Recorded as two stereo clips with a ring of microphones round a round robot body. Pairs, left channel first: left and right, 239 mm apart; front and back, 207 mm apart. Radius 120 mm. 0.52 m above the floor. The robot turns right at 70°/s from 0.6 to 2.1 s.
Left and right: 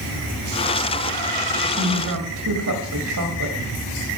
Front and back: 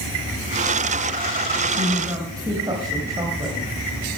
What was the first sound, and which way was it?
A woman speaking, 130° right.